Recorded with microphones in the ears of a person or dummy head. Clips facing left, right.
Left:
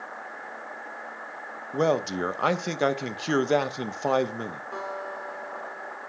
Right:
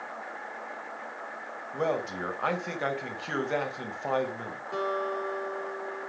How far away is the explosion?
I don't hear an explosion.